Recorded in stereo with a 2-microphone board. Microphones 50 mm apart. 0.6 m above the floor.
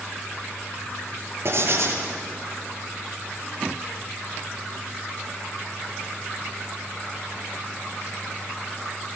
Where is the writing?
55° right (ahead or behind), 9 m.